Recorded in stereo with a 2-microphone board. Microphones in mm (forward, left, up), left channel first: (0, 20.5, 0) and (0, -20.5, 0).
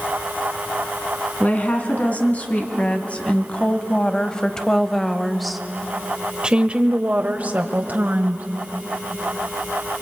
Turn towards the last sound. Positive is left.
turn(degrees=-50)  # may be behind; listen again after turning